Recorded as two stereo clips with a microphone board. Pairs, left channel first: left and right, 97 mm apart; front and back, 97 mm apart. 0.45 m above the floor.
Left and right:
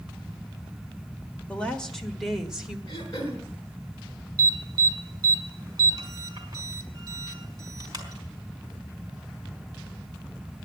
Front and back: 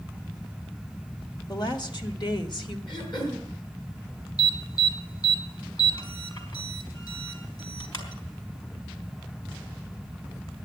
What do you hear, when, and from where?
1.5 s a woman speaking: 20° left, 1.6 m; by 2.8 s 15° right, 1.7 m
2.9 s throat clearing: 40° left, 5 m
4.4 s an alarm: 40° right, 3 m